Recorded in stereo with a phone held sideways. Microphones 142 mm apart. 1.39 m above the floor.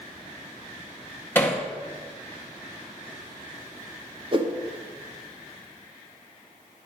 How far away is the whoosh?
About 1.5 m.